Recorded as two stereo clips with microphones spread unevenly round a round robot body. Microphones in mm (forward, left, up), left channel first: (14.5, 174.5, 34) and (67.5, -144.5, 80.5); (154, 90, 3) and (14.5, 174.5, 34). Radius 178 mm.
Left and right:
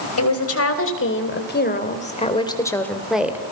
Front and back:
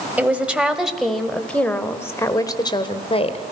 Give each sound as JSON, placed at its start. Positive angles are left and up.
{"t": 0.2, "sound": "a woman speaking", "azimuth_deg": 65, "distance_m": 3.0}